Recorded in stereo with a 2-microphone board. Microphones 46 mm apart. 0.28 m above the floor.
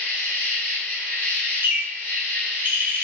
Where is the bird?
60° right (ahead or behind), 0.6 m.